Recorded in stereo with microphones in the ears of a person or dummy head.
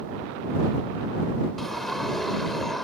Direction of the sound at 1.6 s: Centre (ahead or behind).